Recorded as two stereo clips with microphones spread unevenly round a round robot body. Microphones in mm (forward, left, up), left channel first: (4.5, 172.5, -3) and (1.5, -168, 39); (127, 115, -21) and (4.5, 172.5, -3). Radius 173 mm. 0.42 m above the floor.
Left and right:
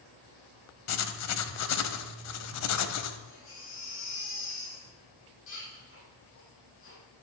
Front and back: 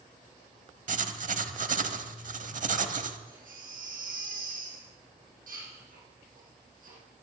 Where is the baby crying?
145° left, 6.5 m.